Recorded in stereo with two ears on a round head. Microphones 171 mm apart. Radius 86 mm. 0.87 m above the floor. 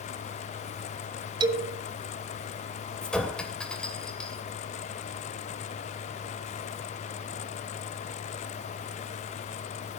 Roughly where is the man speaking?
Right.